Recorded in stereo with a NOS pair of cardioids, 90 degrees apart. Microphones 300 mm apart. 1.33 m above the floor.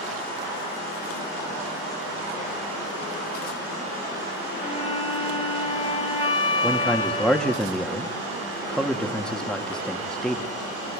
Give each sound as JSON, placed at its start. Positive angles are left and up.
{"t": 4.6, "sound": "a flute", "azimuth_deg": 25, "distance_m": 4.0}
{"t": 6.6, "sound": "a man speaking", "azimuth_deg": 5, "distance_m": 2.5}